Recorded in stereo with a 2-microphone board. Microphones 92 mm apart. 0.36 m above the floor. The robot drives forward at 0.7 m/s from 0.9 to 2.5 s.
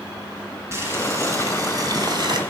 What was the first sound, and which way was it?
Boiling, 30° right (ahead or behind).